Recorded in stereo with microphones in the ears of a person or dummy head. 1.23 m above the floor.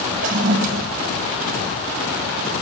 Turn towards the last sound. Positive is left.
turn(degrees=-40)  # may be behind; listen again after turning